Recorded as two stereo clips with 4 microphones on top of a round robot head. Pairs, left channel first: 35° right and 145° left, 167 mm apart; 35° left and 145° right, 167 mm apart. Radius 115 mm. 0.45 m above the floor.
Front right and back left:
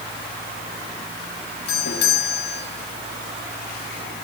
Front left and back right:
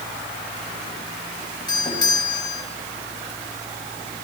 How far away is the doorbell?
About 6 m.